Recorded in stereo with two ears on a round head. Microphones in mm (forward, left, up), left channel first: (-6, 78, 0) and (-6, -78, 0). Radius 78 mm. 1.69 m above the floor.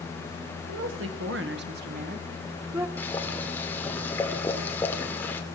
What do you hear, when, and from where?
0.7 s a woman speaking: 90° right, 2 m; by 2.9 s 20° right (ahead or behind), 1.3 m
3.0 s boiling: 10° left (ahead or behind), 2.0 m